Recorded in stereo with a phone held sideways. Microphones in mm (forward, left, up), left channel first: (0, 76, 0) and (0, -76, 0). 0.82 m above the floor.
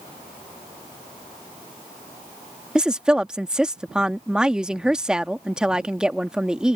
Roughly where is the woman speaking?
Centre.